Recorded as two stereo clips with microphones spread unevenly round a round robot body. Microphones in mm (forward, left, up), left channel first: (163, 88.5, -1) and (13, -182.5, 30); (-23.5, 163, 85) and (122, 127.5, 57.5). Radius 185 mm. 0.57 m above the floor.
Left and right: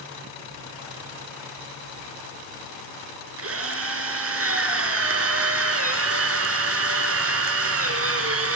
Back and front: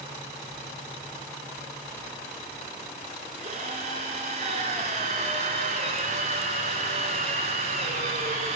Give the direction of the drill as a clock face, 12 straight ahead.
2 o'clock.